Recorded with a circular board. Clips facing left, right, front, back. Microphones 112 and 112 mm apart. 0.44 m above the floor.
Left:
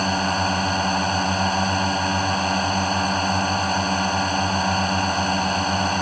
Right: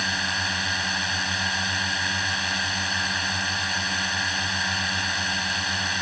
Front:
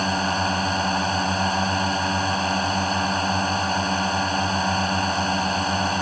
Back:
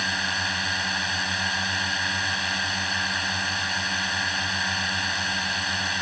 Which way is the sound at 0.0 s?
45° left.